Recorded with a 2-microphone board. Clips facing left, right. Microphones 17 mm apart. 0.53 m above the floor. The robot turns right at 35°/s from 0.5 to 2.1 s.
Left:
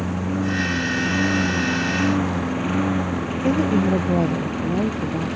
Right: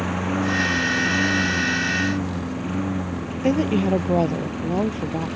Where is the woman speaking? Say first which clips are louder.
Even; 25° right (ahead or behind).